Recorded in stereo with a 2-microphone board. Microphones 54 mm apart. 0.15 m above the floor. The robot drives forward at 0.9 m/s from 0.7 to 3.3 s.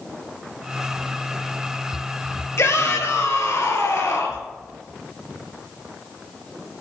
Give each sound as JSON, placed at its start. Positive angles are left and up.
{"t": 2.6, "sound": "a shout", "side_deg": 60, "distance_m": 2.5}